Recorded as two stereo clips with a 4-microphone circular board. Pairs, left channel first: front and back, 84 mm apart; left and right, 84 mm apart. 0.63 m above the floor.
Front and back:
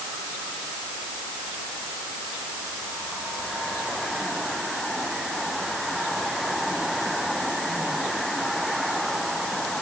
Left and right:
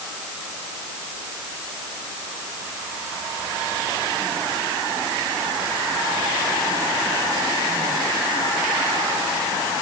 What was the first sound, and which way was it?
Only background noise.